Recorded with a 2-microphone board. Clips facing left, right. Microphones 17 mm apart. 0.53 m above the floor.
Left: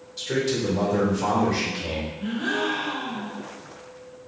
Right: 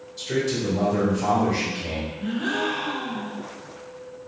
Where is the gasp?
5° left (ahead or behind), 0.8 m.